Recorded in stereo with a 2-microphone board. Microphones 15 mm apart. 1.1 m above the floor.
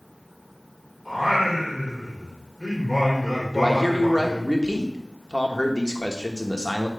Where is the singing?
30° right (ahead or behind), 3.5 m.